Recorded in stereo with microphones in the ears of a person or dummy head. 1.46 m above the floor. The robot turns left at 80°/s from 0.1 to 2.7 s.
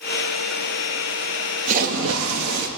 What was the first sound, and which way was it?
A splash, 40° right.